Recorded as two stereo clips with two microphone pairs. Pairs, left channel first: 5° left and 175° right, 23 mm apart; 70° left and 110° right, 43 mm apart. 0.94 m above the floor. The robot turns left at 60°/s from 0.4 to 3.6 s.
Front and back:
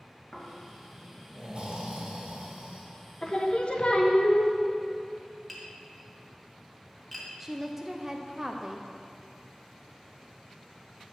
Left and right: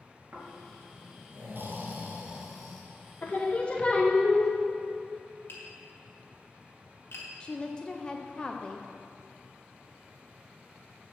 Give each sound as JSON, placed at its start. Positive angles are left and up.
{"t": 0.3, "sound": "snoring", "azimuth_deg": -65, "distance_m": 2.0}
{"t": 3.2, "sound": "singing", "azimuth_deg": 40, "distance_m": 0.8}
{"t": 5.5, "sound": "tapping", "azimuth_deg": 85, "distance_m": 1.7}
{"t": 7.4, "sound": "a woman speaking", "azimuth_deg": 115, "distance_m": 0.5}